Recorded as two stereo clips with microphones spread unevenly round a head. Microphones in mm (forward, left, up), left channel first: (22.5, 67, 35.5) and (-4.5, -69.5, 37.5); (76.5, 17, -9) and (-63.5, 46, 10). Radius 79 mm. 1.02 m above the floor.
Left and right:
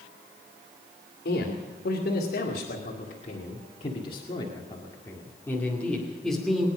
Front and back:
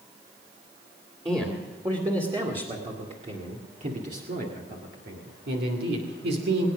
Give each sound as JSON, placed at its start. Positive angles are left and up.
{"t": 1.2, "sound": "a man speaking", "azimuth_deg": 100, "distance_m": 2.5}